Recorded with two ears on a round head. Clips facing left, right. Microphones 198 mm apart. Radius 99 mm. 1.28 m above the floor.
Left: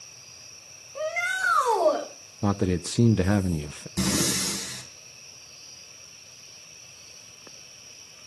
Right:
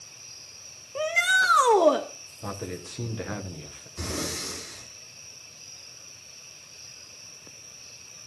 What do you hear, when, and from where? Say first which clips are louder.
0.9 s a shout: right 1 dB; 50° right (ahead or behind), 1.5 m
2.4 s a man speaking: left 10 dB; 60° left (ahead or behind), 0.7 m
4.0 s breathing: left 7 dB; 80° left, 4.5 m